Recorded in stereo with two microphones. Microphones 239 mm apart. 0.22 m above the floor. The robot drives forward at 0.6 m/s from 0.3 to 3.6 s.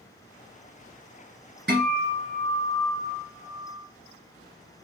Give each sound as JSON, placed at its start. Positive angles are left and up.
{"t": 1.7, "sound": "a guitar", "side_deg": -45, "distance_m": 2.0}